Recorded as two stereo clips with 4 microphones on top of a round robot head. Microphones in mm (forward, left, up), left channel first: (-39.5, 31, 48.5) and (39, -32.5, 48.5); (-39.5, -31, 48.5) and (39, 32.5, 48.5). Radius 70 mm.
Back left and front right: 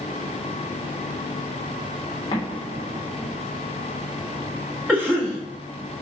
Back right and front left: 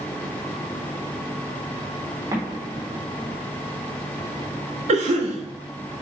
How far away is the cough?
About 1.7 m.